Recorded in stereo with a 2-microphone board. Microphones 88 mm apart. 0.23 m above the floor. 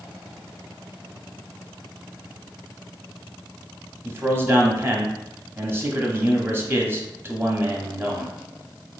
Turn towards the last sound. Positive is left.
turn(degrees=-25)  # may be behind; listen again after turning